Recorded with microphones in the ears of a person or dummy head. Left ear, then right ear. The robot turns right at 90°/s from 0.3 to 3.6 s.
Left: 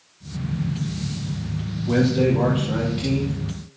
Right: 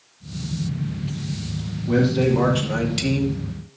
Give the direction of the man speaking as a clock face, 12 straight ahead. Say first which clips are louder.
Even; 6 o'clock.